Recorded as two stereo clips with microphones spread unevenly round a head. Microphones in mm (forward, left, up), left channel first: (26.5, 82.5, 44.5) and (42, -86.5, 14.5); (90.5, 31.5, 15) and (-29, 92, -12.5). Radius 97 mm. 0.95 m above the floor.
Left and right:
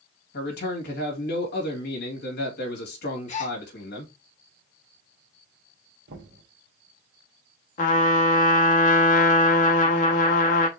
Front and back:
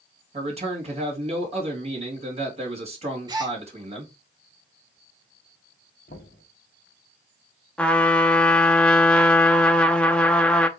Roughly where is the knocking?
Right.